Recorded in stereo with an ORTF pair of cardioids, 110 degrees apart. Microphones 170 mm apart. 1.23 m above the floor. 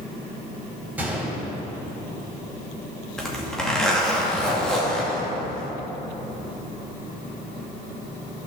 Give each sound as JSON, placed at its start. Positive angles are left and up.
{"t": 1.0, "sound": "a gunshot", "azimuth_deg": -10, "distance_m": 4.0}
{"t": 3.2, "sound": "a zipper", "azimuth_deg": 5, "distance_m": 2.5}